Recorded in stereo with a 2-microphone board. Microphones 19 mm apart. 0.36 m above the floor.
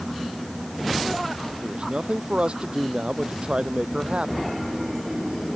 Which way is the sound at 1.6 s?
70° right (ahead or behind).